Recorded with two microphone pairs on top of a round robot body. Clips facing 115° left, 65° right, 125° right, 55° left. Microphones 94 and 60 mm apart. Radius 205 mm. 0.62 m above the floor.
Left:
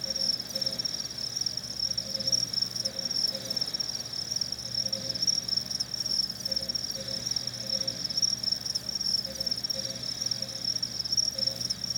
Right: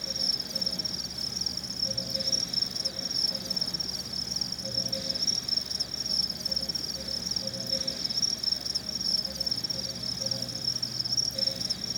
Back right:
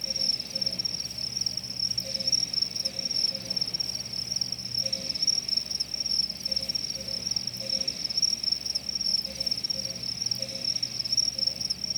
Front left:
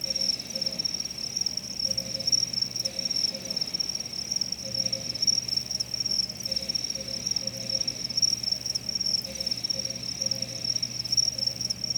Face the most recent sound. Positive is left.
turn(degrees=-25)